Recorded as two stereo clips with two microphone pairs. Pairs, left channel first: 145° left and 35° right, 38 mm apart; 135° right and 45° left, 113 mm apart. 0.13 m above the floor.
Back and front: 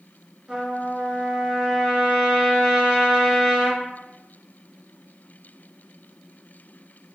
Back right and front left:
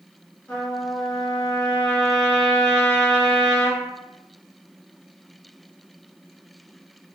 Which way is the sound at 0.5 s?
75° right.